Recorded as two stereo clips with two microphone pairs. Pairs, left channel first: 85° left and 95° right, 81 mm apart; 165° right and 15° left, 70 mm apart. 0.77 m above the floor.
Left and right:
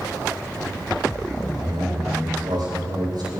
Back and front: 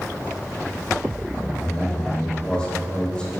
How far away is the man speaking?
About 3.5 m.